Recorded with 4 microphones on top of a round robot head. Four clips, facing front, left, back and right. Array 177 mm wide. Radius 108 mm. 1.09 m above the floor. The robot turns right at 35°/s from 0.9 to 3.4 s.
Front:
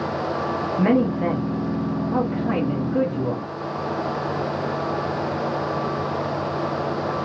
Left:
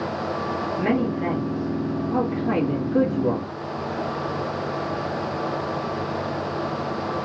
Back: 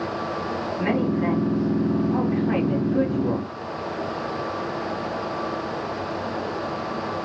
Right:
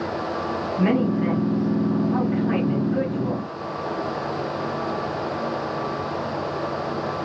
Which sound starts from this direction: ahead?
A man speaking, at 0.8 s.